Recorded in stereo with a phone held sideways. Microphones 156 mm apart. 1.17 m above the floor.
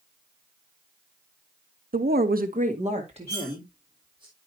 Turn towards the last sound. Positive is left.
turn(degrees=-20)  # may be behind; listen again after turning